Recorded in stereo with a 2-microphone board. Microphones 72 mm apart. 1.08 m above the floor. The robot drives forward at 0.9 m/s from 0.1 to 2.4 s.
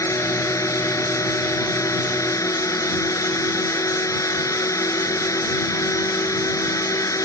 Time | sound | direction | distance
0.0 | a drone | 45° left (ahead or behind) | ?